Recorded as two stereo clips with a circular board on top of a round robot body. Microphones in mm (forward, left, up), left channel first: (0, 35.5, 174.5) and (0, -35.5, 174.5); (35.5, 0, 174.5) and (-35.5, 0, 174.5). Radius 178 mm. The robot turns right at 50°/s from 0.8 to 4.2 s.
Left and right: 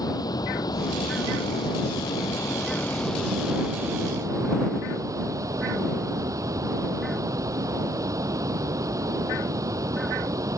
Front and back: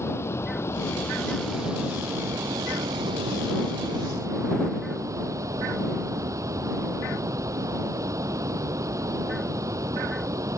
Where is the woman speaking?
I don't hear a woman speaking.